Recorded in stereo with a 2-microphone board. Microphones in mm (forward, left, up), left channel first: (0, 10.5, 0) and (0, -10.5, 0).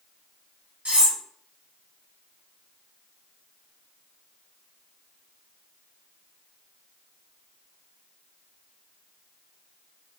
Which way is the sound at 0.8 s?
60° right (ahead or behind).